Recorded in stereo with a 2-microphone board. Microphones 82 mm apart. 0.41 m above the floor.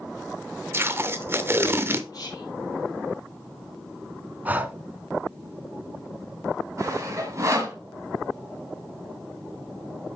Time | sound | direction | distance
0.7 | tape being pulled | 30° right (ahead or behind) | 0.7 m
2.1 | whispering | 50° left (ahead or behind) | 5 m
4.5 | breathing | 20° right (ahead or behind) | 0.7 m
6.8 | sawing | 40° right (ahead or behind) | 1.8 m